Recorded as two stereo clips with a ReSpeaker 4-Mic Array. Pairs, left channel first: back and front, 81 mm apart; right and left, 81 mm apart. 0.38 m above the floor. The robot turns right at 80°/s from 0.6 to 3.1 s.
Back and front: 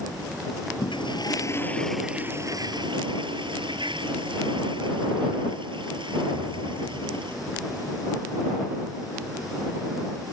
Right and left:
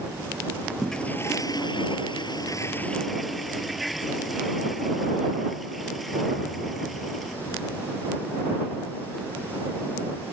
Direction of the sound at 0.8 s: Straight behind.